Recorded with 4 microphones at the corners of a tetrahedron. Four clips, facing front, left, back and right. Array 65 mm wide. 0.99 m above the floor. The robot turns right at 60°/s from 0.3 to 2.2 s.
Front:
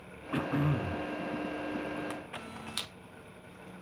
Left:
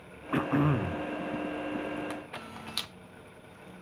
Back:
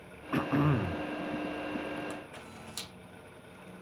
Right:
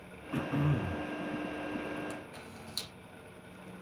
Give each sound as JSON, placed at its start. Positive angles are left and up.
{"t": 0.3, "sound": "throat clearing", "azimuth_deg": 100, "distance_m": 0.5}
{"t": 2.1, "sound": "a camera shutter", "azimuth_deg": 45, "distance_m": 0.7}